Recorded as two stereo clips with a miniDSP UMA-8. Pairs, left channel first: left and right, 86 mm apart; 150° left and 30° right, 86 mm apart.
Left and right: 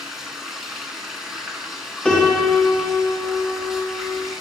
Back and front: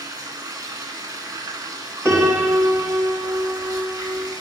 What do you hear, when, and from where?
0.0 s running water: 5° right, 1.6 m
2.0 s a piano: 15° left, 2.5 m